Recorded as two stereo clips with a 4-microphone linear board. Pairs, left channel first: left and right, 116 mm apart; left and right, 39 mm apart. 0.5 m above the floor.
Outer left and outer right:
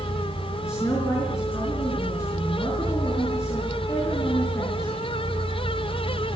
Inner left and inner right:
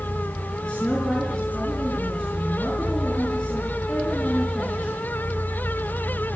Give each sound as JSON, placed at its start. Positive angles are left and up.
{"t": 0.6, "sound": "a woman speaking", "side_deg": 25, "distance_m": 6.0}